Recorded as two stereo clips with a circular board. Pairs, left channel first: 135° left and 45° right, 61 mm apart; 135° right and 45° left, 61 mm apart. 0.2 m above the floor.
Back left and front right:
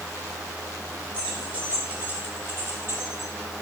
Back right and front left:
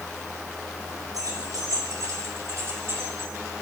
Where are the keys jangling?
35° left, 5 m; by 3.3 s 5° right, 4.5 m.